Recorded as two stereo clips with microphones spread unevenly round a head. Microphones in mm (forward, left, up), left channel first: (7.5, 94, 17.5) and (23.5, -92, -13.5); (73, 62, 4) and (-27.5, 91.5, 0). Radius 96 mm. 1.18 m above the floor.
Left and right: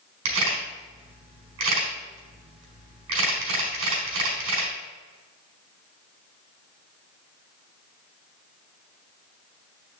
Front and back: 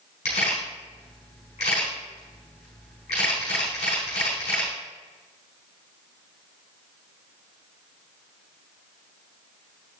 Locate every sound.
0.2 s a camera shutter: 70° right, 4.5 m